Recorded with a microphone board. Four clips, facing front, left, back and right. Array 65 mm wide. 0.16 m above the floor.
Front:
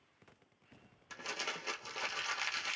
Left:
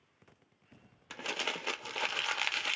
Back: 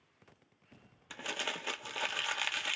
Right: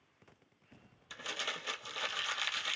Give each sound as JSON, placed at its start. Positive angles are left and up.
{"t": 1.1, "sound": "crumpling", "azimuth_deg": 105, "distance_m": 0.8}